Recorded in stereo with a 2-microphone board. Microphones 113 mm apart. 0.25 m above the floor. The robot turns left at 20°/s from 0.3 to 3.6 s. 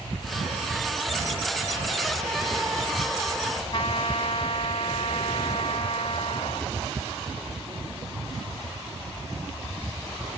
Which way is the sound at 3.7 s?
55° left (ahead or behind).